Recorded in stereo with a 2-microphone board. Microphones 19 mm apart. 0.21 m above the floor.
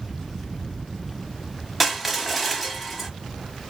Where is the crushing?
5° right (ahead or behind), 0.6 m.